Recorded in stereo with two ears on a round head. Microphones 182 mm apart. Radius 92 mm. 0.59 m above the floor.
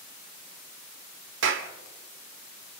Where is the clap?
65° right (ahead or behind), 1.6 m.